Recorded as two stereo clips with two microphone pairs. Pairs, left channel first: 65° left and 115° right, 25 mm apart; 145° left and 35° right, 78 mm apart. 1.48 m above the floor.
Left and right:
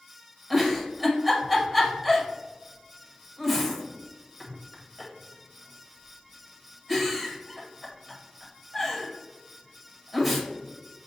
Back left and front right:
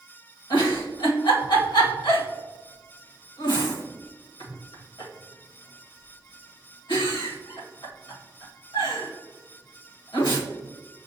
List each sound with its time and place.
0.5 s a giggle: 160° left, 1.3 m